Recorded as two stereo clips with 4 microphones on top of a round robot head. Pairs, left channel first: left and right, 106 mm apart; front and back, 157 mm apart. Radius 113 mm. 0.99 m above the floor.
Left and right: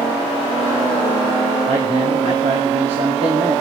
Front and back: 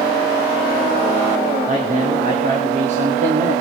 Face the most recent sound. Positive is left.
turn(degrees=-130)